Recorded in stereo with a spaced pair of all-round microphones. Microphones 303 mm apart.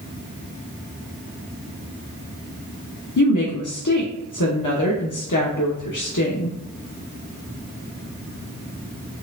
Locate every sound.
3.2 s a woman speaking: 80° left, 0.8 m